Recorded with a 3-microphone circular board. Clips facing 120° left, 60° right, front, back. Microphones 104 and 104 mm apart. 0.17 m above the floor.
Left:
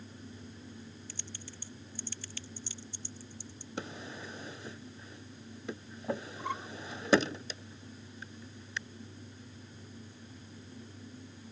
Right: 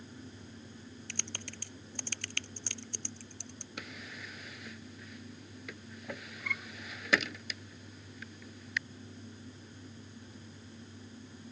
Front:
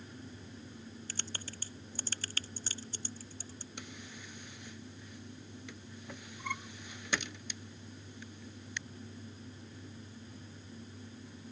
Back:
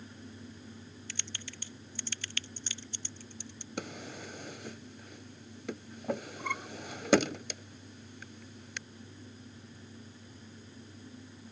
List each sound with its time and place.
1.1 s typing on a keyboard: 50° right
3.8 s a drawer: 170° left